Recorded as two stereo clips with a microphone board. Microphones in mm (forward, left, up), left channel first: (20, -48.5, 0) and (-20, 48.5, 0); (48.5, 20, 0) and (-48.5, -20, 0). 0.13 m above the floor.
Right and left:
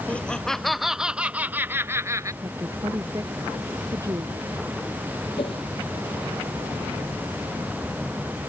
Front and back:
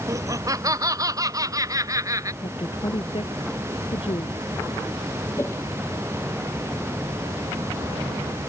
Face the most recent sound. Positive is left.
turn(degrees=-40)